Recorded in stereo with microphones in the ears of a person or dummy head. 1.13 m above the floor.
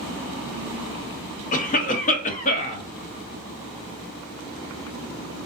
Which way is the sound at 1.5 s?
40° left (ahead or behind).